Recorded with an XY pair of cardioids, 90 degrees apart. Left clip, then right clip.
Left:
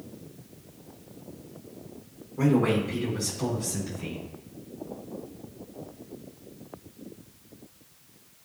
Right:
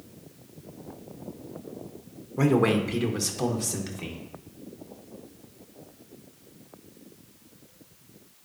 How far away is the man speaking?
About 1.6 m.